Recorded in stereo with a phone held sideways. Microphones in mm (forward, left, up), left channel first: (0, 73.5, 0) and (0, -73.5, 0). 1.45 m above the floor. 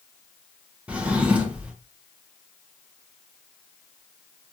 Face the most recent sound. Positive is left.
turn(degrees=-10)  # may be behind; listen again after turning